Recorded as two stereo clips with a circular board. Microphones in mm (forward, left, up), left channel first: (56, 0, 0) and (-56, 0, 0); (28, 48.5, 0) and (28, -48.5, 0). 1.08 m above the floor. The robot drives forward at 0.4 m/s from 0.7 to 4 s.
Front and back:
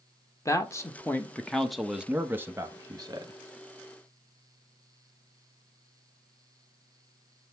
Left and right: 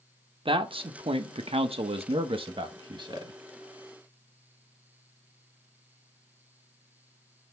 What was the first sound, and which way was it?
A man speaking, 65° right.